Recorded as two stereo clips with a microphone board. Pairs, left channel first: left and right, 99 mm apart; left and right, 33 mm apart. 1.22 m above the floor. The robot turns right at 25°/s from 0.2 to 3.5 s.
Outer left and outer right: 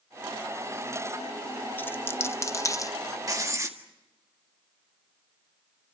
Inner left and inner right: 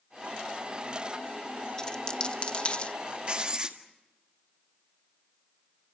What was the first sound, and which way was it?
A dropped coin, 20° left (ahead or behind).